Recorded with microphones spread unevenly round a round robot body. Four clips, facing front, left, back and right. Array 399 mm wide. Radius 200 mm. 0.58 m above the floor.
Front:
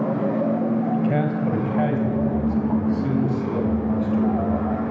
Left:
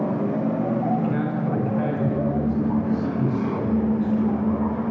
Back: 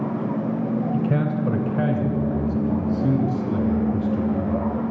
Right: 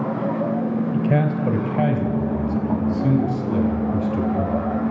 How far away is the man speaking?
About 2.5 m.